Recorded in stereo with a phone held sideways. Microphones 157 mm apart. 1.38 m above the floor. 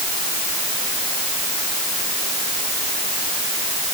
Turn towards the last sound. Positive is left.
No sound to turn to.